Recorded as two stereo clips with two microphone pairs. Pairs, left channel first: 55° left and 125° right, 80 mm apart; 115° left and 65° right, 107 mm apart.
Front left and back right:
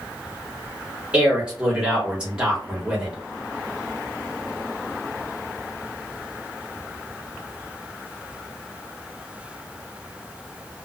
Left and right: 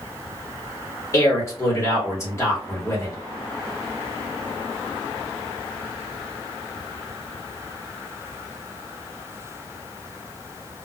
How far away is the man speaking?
About 1.5 m.